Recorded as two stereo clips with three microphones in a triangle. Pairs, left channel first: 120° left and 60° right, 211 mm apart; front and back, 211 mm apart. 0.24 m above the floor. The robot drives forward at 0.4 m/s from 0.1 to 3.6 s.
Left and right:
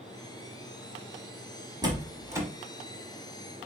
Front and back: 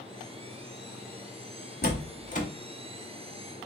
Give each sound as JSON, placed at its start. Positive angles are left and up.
{"t": 1.8, "sound": "a door slam", "azimuth_deg": 5, "distance_m": 1.0}